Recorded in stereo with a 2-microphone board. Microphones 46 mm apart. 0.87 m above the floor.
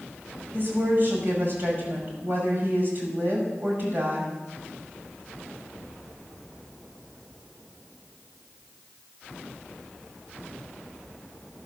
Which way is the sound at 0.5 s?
50° right (ahead or behind).